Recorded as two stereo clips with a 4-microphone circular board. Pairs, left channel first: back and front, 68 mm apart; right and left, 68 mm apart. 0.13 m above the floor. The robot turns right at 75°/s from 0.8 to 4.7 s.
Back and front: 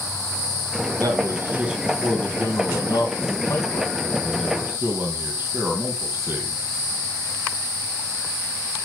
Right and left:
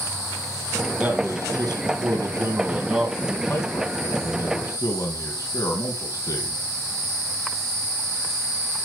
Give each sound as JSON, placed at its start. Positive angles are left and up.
{"t": 1.0, "sound": "a man speaking", "azimuth_deg": 20, "distance_m": 4.0}